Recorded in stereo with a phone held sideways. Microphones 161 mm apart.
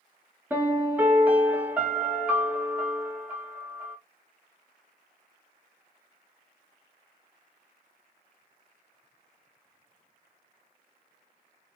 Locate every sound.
0.5 s a piano: 10° right (ahead or behind), 1.7 m